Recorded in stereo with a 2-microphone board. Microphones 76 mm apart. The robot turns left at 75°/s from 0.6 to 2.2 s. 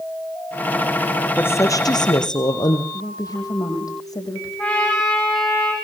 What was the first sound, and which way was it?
A woman speaking, 155° left.